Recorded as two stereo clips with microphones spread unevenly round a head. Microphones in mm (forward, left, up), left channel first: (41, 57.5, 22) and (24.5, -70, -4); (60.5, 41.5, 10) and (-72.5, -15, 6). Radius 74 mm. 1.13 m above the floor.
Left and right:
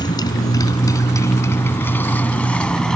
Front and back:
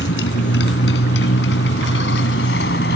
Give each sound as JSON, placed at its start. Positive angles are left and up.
{"t": 0.0, "sound": "a motorcycle", "azimuth_deg": 25}